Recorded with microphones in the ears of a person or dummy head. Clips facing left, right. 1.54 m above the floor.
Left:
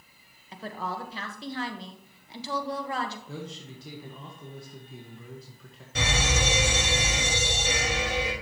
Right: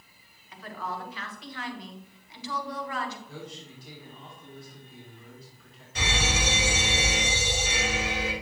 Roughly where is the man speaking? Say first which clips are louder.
Left 3 dB; left.